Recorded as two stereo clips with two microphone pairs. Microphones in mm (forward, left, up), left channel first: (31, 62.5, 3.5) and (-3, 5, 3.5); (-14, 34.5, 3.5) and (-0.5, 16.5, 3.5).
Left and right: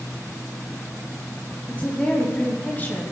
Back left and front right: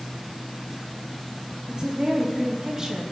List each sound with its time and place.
1.7 s a woman speaking: 10° right, 5 m; by 3.0 s straight ahead, 4 m